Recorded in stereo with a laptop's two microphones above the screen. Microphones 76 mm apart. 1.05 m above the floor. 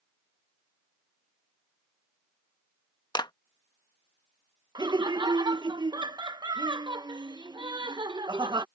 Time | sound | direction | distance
3.1 | a clap | 65° left (ahead or behind) | ?
4.8 | laughter | 70° right (ahead or behind) | ?